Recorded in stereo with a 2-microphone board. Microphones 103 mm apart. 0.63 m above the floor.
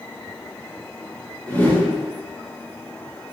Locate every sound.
1.5 s a whoosh: 15° left (ahead or behind), 0.5 m